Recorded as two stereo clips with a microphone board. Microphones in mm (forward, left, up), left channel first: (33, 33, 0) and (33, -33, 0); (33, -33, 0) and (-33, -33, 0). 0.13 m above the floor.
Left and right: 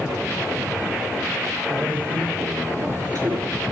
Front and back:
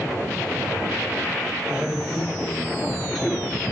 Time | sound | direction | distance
1.7 | a man speaking | 95° right | 3.5 m